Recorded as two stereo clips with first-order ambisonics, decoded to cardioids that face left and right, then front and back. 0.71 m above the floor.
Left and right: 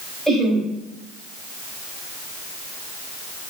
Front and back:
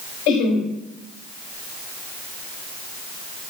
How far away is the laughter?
About 4 m.